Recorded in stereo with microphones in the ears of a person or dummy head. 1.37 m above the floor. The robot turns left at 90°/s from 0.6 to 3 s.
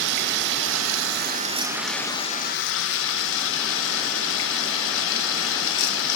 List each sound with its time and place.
0.0 s running water: 60° right, 0.7 m; by 6.2 s 85° left, 0.7 m